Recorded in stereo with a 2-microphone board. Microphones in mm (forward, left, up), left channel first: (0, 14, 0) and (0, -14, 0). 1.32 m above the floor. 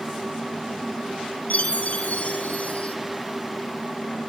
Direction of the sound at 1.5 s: 65° left (ahead or behind).